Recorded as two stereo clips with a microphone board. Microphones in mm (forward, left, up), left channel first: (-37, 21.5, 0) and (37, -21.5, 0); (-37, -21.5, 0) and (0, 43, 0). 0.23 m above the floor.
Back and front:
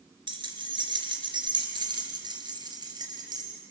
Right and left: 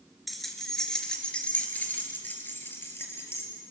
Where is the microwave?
I don't hear a microwave.